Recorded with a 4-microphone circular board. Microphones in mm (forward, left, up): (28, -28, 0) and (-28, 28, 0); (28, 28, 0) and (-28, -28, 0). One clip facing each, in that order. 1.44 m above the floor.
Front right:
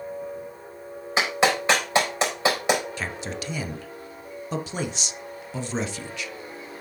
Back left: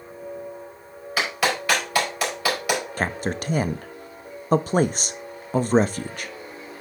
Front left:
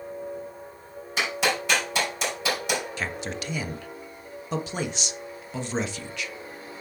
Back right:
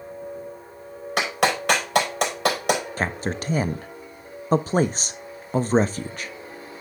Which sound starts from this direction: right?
A clap, at 1.2 s.